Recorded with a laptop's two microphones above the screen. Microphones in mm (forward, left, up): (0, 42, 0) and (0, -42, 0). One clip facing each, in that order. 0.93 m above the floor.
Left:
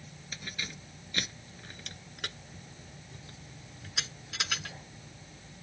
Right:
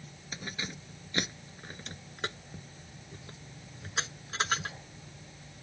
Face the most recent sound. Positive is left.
turn(degrees=-40)  # may be behind; listen again after turning